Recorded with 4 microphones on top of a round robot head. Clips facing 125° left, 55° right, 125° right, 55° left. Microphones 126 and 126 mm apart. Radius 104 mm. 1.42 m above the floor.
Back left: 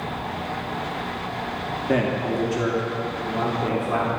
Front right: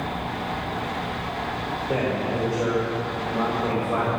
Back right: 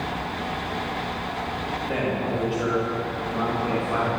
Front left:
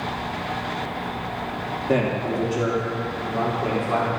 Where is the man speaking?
100° left, 2.5 m; by 4.1 s 110° left, 3.5 m.